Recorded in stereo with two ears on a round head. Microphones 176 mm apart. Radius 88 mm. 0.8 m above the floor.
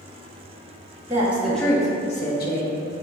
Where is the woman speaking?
15° right (ahead or behind), 1.0 m; by 2.7 s 60° left (ahead or behind), 0.9 m.